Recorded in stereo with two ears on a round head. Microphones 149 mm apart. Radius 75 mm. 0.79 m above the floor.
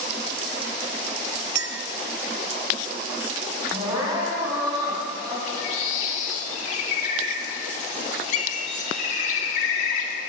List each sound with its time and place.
1.6 s a clink: 70° right (ahead or behind), 0.7 m
3.7 s crying: 20° right (ahead or behind), 5 m
5.5 s a bird: 45° left (ahead or behind), 2 m